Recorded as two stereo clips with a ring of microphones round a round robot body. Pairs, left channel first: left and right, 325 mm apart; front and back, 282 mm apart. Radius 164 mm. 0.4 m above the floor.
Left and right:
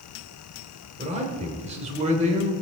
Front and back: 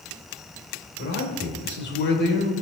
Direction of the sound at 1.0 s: 30° right.